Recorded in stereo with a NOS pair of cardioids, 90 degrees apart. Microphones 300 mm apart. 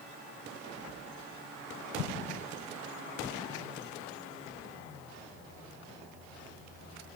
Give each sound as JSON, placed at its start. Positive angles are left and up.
{"t": 2.0, "sound": "an explosion", "azimuth_deg": 50, "distance_m": 0.7}